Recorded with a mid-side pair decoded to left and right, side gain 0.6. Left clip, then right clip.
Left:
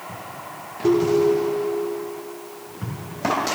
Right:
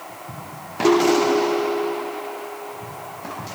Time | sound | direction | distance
0.8 | a ringtone | 15° right | 2.5 m